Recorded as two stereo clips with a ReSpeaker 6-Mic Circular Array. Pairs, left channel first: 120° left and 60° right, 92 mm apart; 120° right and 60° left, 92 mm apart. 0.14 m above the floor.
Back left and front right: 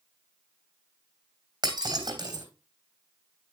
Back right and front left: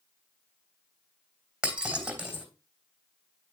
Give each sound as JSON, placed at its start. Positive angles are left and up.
{"t": 1.6, "sound": "breaking glass", "azimuth_deg": -20, "distance_m": 2.5}